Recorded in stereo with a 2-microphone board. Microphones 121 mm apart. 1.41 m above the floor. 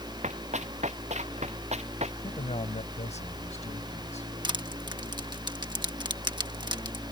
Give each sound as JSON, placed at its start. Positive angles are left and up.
{"t": 0.2, "sound": "running footsteps", "side_deg": -70}
{"t": 2.2, "sound": "a man speaking", "side_deg": 65}
{"t": 4.4, "sound": "crushing", "side_deg": -35}